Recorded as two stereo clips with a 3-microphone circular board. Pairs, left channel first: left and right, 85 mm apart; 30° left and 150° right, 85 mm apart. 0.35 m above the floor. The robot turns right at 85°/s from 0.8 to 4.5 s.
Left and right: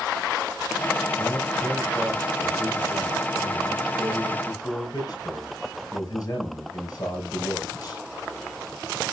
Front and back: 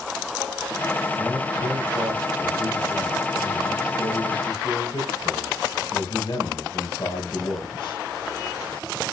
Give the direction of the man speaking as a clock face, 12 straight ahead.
8 o'clock.